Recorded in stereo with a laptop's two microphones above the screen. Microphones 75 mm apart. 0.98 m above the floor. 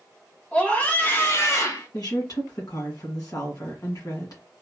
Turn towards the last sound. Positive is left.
turn(degrees=55)  # may be behind; listen again after turning